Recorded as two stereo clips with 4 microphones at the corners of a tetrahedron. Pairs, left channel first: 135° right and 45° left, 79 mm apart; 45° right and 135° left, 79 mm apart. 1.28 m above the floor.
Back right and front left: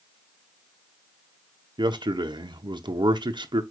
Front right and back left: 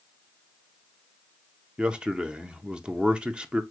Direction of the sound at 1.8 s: 55° left.